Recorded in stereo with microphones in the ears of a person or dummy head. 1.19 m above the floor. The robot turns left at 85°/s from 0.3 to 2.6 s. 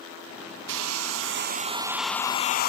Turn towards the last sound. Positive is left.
turn(degrees=135)